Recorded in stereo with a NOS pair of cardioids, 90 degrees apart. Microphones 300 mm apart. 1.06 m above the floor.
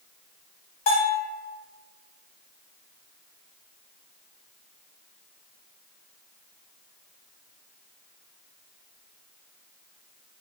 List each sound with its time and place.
0.9 s a bell: 60° left, 1.5 m